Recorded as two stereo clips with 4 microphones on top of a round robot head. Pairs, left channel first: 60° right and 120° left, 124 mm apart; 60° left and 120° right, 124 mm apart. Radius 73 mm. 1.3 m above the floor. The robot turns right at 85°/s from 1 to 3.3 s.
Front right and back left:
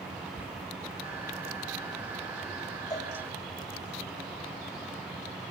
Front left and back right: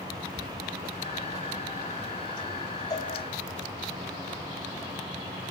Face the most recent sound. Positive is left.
turn(degrees=35)